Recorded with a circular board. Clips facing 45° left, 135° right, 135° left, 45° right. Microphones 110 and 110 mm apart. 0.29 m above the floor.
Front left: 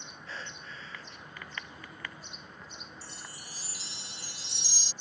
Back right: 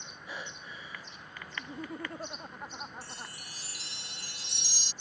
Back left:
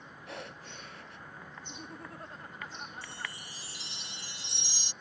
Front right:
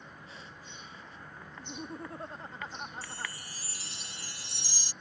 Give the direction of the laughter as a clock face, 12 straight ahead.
4 o'clock.